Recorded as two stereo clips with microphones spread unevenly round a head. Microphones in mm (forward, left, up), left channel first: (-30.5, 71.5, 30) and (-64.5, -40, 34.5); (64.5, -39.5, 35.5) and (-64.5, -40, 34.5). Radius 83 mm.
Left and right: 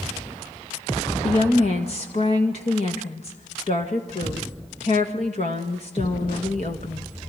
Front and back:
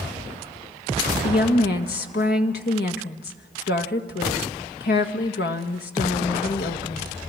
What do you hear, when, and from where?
1.2 s a woman speaking: 20° left, 1.7 m